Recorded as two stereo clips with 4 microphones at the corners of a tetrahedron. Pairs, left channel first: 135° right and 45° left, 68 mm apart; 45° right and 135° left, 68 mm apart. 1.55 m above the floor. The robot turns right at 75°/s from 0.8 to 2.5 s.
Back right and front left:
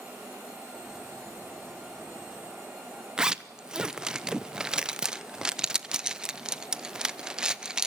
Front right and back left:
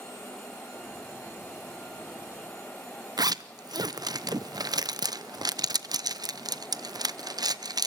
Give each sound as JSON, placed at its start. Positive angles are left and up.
{"t": 3.2, "sound": "a zipper", "azimuth_deg": 125, "distance_m": 0.6}